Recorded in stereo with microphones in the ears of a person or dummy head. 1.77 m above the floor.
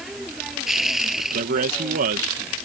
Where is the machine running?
Centre (ahead or behind).